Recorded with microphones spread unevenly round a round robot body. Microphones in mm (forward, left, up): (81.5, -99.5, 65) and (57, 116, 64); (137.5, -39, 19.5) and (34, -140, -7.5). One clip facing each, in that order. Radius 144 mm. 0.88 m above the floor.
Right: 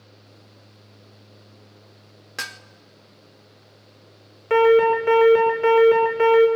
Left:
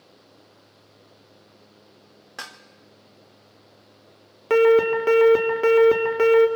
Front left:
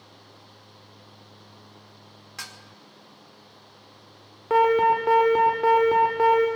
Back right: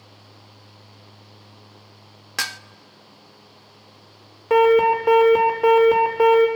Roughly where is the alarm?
Behind left.